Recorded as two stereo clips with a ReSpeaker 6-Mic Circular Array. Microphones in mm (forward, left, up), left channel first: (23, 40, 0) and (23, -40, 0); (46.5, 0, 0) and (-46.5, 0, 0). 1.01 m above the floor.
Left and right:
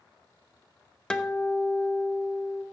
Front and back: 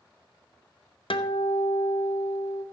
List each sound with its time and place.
1.1 s a guitar: 10° left, 0.8 m